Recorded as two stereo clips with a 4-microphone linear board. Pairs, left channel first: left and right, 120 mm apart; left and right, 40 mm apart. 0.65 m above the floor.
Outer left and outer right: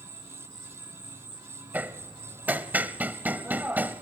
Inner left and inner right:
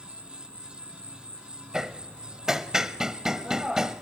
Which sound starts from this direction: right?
An insect, at 0.0 s.